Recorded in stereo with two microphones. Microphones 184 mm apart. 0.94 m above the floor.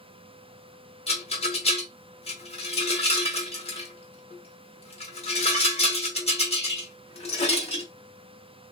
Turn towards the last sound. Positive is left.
turn(degrees=35)  # may be behind; listen again after turning